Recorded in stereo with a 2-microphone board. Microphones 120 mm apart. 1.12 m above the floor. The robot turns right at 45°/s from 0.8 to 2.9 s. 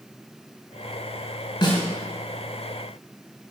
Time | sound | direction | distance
1.6 | a snare drum | 40° left (ahead or behind) | 3.5 m